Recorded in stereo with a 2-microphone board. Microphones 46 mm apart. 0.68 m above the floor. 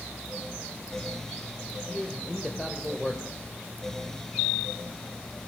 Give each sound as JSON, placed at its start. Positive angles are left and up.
{"t": 1.9, "sound": "a man speaking", "side_deg": 10, "distance_m": 2.5}